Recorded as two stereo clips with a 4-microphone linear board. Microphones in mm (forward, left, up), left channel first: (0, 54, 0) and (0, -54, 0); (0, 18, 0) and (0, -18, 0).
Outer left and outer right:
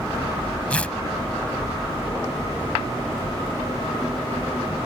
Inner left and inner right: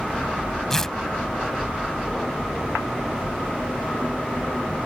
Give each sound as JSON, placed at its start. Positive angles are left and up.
{"t": 0.7, "sound": "tearing paper", "side_deg": 10}